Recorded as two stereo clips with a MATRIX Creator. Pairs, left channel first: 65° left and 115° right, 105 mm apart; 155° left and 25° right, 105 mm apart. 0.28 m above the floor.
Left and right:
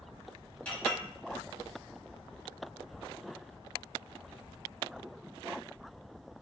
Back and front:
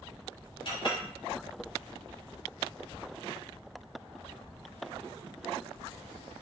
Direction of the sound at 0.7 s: 140° left.